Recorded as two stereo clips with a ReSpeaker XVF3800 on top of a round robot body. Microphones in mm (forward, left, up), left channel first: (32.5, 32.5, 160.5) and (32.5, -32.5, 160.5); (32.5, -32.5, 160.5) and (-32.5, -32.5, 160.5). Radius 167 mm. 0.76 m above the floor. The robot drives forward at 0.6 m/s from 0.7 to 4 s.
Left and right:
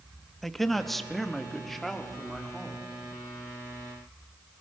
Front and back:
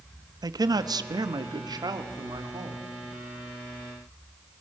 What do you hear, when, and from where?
0.4 s a man speaking: straight behind, 1.0 m